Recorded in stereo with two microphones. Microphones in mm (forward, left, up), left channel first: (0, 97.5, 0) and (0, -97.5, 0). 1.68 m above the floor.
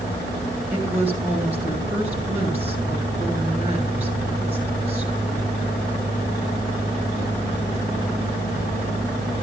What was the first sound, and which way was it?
A woman speaking, 35° right (ahead or behind).